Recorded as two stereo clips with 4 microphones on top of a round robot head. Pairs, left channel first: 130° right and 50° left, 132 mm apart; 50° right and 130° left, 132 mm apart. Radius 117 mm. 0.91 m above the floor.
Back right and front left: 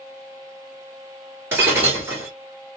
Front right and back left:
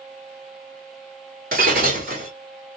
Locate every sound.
1.5 s breaking glass: 115° left, 1.0 m